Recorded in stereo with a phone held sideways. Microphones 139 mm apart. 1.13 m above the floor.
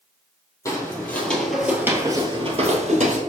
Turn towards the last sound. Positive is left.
turn(degrees=-60)  # may be behind; listen again after turning